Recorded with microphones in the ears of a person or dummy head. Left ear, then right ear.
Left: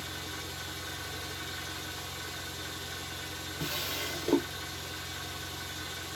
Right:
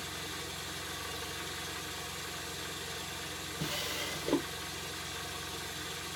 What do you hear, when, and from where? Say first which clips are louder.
0.0 s an engine running: left 1 dB; centre (ahead or behind), 1.1 m
3.6 s a drawer: left 2 dB; 15° left (ahead or behind), 1.6 m